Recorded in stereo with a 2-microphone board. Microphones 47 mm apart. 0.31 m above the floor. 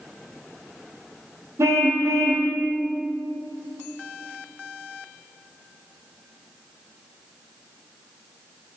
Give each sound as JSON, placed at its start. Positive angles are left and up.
{"t": 1.6, "sound": "a car horn", "side_deg": -75, "distance_m": 6.5}